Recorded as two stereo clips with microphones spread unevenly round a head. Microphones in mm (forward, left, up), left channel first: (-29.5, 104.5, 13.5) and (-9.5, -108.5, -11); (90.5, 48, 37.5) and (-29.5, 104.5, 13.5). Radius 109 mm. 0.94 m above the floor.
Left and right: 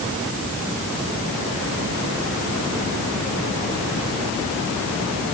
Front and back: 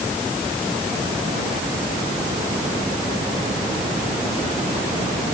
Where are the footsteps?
I don't hear footsteps.